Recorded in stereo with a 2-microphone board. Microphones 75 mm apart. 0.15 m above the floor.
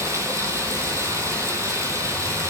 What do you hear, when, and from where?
0.0 s running water: 40° right (ahead or behind), 0.7 m